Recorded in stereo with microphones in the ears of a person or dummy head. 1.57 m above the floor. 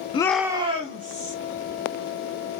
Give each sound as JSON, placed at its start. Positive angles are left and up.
{"t": 0.1, "sound": "a shout", "side_deg": 25, "distance_m": 0.5}